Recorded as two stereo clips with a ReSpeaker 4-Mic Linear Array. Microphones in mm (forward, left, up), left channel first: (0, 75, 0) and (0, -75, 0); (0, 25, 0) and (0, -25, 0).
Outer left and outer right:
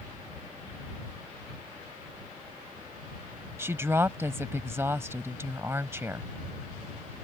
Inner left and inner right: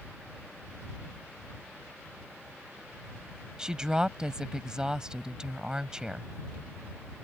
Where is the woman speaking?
15° right (ahead or behind).